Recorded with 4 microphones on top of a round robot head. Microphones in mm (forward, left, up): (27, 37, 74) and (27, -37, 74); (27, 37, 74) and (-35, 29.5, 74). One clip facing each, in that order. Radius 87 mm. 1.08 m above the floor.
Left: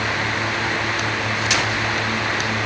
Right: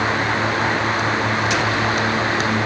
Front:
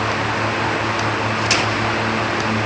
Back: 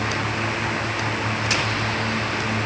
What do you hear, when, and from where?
Only background noise.